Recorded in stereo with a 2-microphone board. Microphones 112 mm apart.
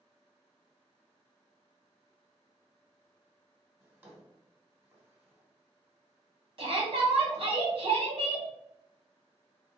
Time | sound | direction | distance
3.8 | a drawer | 20° right (ahead or behind) | 1.5 m
6.6 | a shout | 50° right (ahead or behind) | 1.7 m